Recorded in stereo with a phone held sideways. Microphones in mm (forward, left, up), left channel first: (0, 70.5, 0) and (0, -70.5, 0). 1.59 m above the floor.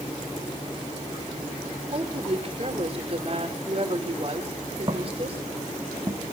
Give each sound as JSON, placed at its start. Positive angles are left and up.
{"t": 1.9, "sound": "a woman speaking", "side_deg": -45, "distance_m": 4.0}
{"t": 4.9, "sound": "footsteps", "side_deg": -30, "distance_m": 4.5}